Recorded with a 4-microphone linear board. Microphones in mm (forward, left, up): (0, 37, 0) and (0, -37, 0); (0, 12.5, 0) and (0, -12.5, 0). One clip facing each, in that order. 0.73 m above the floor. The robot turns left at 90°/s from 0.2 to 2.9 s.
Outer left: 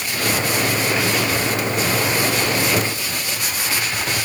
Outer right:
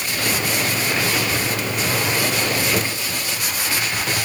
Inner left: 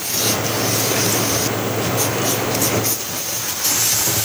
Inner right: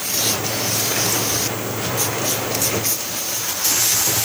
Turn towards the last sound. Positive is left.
No sound to turn to.